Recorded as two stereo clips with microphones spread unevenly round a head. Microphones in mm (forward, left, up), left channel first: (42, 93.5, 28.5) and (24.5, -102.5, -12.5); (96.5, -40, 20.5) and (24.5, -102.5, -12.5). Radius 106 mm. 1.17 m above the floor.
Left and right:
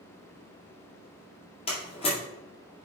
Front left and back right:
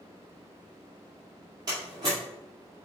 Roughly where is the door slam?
Behind left.